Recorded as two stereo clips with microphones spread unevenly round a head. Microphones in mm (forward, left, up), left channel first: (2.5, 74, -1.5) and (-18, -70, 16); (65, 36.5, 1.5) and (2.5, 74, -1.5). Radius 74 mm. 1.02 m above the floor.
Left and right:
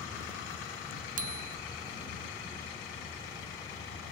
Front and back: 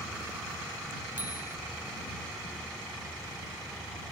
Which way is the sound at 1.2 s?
130° right.